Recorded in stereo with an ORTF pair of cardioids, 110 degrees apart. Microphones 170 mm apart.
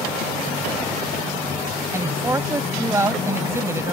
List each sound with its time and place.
1.9 s a man speaking: 15° right